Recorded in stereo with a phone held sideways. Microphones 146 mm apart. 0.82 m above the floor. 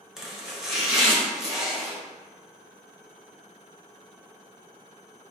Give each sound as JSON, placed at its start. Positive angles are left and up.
{"t": 0.2, "sound": "chopping", "side_deg": -5, "distance_m": 0.9}